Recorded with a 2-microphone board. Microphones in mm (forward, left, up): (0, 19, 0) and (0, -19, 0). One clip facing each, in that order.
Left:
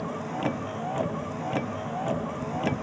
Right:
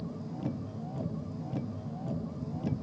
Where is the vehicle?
80° left.